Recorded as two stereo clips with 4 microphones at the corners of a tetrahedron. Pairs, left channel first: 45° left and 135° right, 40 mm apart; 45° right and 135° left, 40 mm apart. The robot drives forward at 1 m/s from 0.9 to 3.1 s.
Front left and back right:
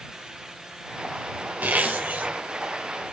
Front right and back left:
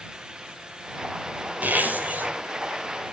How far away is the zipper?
About 3.5 m.